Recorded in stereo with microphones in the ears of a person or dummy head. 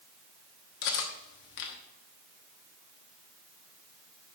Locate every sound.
0.8 s cutlery clinking: 60° left (ahead or behind), 1.0 m